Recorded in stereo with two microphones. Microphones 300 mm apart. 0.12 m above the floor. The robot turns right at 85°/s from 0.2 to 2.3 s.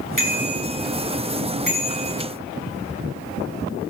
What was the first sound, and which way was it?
A bicycle bell, 85° right.